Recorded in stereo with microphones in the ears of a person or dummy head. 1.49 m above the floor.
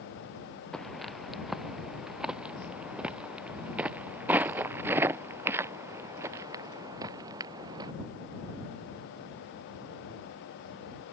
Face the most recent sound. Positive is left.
turn(degrees=-20)  # may be behind; listen again after turning